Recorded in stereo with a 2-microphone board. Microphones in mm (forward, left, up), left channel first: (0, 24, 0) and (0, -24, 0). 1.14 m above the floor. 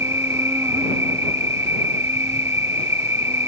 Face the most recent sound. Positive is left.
turn(degrees=-75)  # may be behind; listen again after turning